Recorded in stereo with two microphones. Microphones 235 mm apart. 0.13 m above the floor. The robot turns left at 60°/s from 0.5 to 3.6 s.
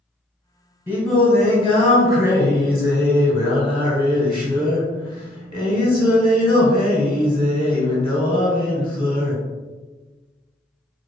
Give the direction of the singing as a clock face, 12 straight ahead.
6 o'clock.